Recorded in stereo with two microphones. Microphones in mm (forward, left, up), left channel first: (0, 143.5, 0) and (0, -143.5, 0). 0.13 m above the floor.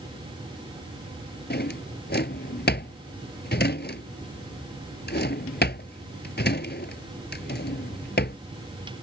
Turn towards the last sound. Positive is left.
turn(degrees=40)  # may be behind; listen again after turning